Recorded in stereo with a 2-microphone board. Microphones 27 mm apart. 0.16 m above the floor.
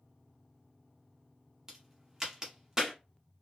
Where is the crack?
15° right (ahead or behind), 0.9 m.